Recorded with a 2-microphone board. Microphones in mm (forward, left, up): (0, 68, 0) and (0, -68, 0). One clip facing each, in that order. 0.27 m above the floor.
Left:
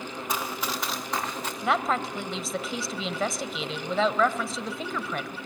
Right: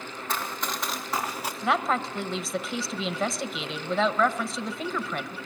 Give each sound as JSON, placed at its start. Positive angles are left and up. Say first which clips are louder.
{"t": 0.3, "sound": "running footsteps", "louder": "even", "side_deg": 15, "distance_m": 2.0}
{"t": 1.6, "sound": "a woman speaking", "louder": "even", "side_deg": 0, "distance_m": 1.0}